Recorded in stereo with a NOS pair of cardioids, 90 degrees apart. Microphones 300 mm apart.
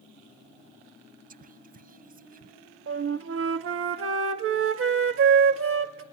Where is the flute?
50° right, 1.5 m.